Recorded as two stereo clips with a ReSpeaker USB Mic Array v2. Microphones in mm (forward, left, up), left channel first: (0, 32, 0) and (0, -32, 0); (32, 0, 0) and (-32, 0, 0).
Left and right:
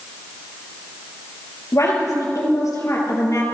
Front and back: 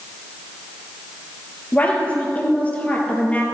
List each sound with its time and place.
1.7 s a woman speaking: 65° left, 3 m